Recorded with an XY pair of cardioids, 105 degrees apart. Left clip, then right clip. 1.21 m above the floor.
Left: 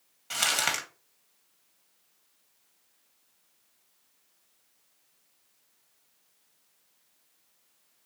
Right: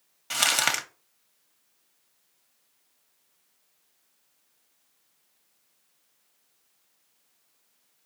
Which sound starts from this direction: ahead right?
Crumpling, at 0.3 s.